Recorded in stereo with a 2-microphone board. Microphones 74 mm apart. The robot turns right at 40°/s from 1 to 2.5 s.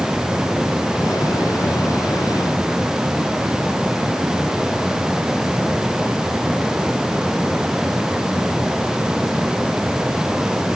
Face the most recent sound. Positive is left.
No sound to turn to.